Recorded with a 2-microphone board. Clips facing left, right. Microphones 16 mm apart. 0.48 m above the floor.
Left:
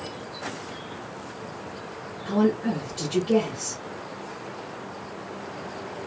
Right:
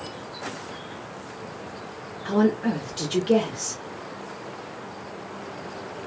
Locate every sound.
2.2 s a woman speaking: 35° right (ahead or behind), 1.1 m